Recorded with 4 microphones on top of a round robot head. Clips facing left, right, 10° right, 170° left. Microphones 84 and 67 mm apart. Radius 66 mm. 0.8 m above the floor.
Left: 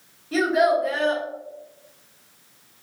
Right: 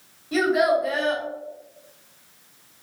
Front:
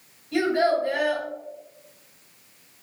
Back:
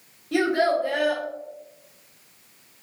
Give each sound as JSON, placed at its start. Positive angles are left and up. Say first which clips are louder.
{"t": 0.3, "sound": "a child speaking", "louder": "left 1 dB, even", "azimuth_deg": -175, "distance_m": 1.4}